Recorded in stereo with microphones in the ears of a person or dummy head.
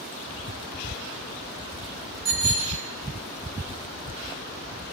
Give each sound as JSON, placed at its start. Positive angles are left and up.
{"t": 2.2, "sound": "a bicycle bell", "side_deg": -55, "distance_m": 8.0}